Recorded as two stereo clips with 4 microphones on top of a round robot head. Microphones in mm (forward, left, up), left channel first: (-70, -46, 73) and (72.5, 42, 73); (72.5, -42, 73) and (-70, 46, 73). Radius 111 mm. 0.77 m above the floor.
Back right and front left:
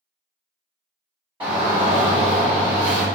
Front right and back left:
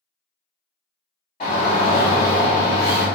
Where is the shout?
20° right, 1.3 m.